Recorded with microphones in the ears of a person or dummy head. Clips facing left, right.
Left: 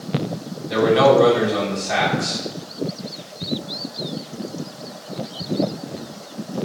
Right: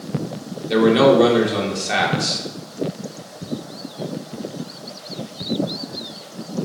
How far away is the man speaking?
About 2.5 m.